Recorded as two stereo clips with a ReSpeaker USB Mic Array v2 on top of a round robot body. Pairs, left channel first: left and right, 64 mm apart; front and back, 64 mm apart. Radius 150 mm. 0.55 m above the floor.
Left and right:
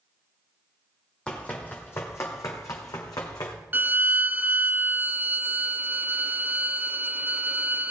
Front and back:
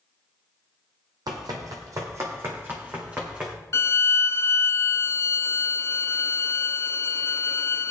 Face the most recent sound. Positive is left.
turn(degrees=-35)